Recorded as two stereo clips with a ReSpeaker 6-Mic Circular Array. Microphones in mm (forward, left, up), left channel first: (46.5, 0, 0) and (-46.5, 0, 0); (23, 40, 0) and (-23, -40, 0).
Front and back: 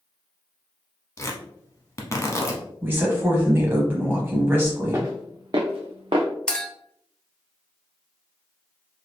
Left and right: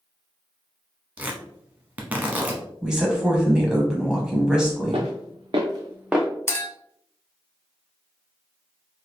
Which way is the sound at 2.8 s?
175° left.